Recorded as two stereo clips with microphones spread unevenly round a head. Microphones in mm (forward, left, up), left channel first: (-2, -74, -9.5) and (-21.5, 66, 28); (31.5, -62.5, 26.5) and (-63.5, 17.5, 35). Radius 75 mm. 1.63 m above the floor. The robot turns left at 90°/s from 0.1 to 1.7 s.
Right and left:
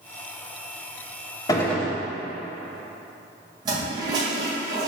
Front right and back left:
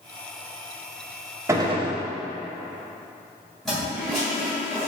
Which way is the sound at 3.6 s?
50° left.